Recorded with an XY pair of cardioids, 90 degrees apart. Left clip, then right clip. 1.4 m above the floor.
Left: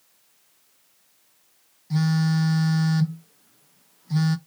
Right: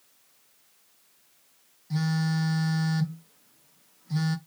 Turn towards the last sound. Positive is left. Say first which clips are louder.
# left 4 dB
turn(degrees=25)